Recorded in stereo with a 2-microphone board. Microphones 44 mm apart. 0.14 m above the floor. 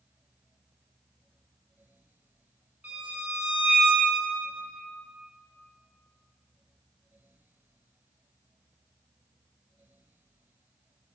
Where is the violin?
30° right (ahead or behind), 1.0 m.